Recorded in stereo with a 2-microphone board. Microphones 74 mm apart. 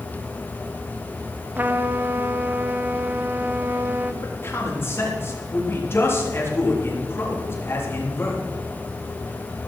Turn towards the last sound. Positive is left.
turn(degrees=35)  # may be behind; listen again after turning